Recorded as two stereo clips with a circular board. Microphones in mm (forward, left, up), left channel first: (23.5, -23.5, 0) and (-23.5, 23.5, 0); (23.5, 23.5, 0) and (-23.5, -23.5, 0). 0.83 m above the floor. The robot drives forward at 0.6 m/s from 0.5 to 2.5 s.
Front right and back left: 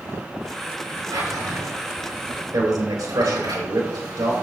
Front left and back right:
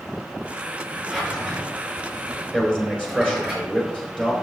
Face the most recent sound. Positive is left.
turn(degrees=155)